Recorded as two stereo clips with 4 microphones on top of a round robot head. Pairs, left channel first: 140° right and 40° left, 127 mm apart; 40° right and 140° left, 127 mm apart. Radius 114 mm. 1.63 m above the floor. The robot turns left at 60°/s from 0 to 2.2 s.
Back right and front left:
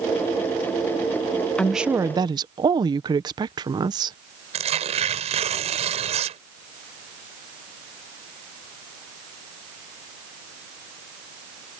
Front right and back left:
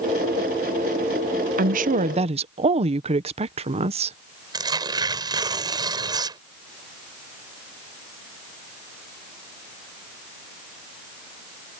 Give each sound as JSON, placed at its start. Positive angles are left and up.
{"t": 1.6, "sound": "a woman speaking", "azimuth_deg": 135}
{"t": 4.5, "sound": "tearing paper", "azimuth_deg": 80}